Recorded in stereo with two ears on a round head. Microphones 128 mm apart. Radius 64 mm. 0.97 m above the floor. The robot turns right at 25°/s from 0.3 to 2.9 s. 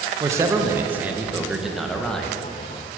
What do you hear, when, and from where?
0.2 s a man speaking: 40° right, 0.7 m; by 2.4 s 10° left, 0.7 m